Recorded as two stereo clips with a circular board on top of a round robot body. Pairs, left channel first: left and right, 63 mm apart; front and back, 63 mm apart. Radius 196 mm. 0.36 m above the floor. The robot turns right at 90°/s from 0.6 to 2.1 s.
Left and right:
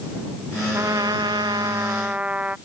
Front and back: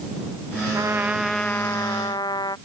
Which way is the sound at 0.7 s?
140° right.